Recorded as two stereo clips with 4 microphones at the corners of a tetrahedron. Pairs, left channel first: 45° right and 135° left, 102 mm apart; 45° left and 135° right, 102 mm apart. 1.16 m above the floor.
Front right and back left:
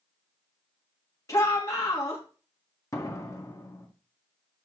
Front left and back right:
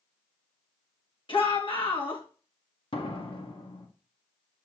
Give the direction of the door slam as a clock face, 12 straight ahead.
12 o'clock.